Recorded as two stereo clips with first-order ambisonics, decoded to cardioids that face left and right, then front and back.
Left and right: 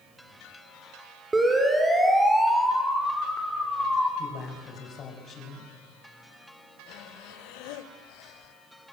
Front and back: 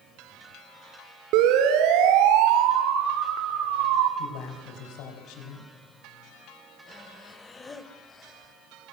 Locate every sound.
1.3 s a siren: 170° right, 4 m; by 4.1 s 175° left, 5 m
4.2 s a man speaking: 30° left, 6 m
6.9 s breathing: 70° left, 1.7 m